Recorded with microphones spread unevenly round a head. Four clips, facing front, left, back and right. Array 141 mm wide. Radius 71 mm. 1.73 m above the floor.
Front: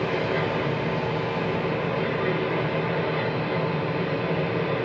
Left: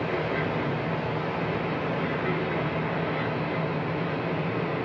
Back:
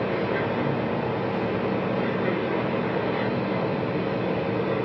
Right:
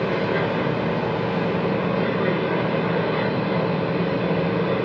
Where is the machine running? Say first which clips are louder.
Right 6 dB, even; 100° right, 2 m.